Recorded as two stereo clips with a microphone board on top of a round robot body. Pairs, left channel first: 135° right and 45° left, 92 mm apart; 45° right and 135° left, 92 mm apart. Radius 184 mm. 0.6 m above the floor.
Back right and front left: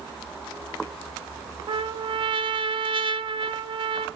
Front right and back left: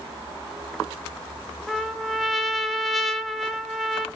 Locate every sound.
1.7 s a trumpet: 45° left, 0.7 m